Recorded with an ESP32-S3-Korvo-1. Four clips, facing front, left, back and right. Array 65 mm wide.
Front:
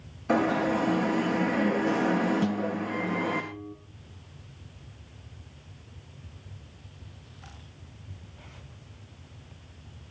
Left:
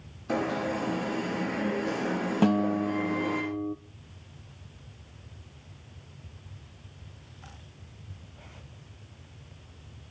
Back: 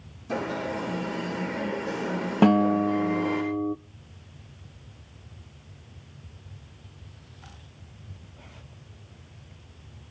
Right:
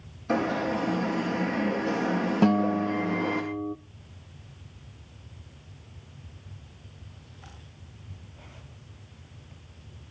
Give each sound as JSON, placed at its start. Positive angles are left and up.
{"t": 0.3, "sound": "an alarm", "azimuth_deg": -5, "distance_m": 4.5}
{"t": 2.4, "sound": "a guitar", "azimuth_deg": -175, "distance_m": 0.7}